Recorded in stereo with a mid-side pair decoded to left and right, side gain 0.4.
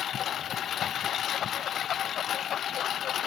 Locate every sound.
0.0 s a lawn mower: 70° left